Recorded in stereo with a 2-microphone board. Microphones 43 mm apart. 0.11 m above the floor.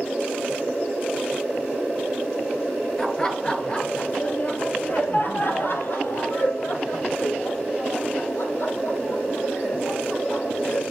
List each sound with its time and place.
3.0 s laughter: 10° left (ahead or behind), 1.8 m; by 10.8 s 75° left (ahead or behind), 5 m